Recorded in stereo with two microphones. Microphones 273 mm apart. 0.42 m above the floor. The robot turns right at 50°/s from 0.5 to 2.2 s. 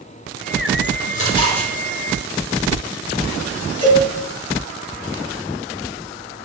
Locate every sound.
1.1 s chewing: 30° left (ahead or behind), 3.5 m; by 1.7 s centre (ahead or behind), 3.5 m
3.8 s a cowbell: 70° left (ahead or behind), 4 m